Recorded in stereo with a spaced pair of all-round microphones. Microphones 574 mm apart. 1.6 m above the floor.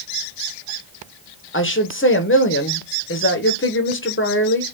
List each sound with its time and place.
1.5 s a woman speaking: 20° left (ahead or behind), 1.0 m